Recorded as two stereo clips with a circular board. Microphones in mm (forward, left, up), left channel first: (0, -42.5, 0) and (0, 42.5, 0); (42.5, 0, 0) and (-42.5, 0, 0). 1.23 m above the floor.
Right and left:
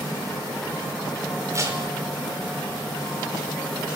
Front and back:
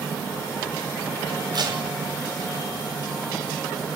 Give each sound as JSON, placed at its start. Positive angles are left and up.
{"t": 1.5, "sound": "tape being pulled", "azimuth_deg": 145, "distance_m": 5.5}